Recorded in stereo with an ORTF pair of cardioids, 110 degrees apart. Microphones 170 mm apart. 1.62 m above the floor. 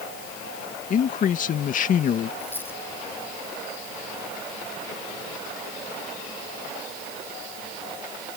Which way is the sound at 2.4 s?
10° left.